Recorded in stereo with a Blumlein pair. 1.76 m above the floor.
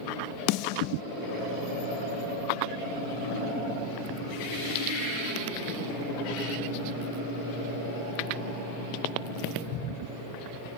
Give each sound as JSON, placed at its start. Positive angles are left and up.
{"t": 0.5, "sound": "a snare drum", "azimuth_deg": 45, "distance_m": 0.5}